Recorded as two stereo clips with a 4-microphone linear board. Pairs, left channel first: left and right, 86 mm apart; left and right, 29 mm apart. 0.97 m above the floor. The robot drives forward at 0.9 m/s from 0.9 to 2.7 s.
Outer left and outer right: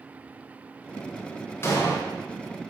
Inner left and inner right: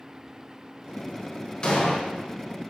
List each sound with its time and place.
1.6 s an explosion: 30° left (ahead or behind), 0.7 m